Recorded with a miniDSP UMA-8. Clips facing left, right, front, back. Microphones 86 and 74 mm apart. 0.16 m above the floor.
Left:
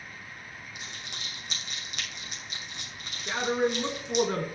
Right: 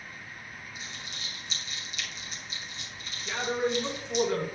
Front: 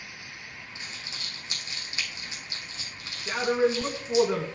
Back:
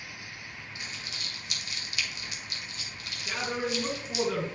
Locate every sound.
0.8 s crumpling: 65° left, 2.5 m
3.3 s a man speaking: 55° left, 1.6 m